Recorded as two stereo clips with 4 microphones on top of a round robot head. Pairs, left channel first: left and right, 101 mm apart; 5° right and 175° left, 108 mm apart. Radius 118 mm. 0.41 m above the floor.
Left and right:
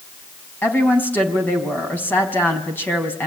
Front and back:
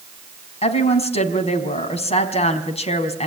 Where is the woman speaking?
20° left, 4.5 m.